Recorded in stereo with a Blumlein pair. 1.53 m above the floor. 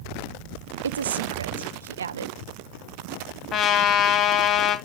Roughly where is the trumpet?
Ahead left.